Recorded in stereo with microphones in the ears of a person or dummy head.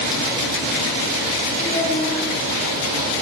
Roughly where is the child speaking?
Left.